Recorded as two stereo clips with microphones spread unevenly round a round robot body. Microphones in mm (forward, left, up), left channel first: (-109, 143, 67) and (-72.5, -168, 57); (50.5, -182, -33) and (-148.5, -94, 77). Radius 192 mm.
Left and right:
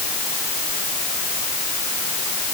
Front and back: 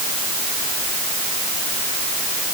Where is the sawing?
I don't hear sawing.